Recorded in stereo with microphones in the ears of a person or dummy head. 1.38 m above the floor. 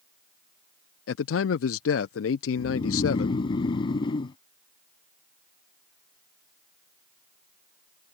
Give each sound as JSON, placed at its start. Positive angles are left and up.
{"t": 1.1, "sound": "a man speaking", "side_deg": 70}
{"t": 2.6, "sound": "snoring", "side_deg": 30}